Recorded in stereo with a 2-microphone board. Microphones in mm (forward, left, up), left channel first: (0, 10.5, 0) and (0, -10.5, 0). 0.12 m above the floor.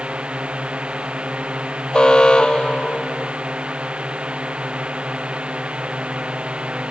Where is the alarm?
45° left (ahead or behind).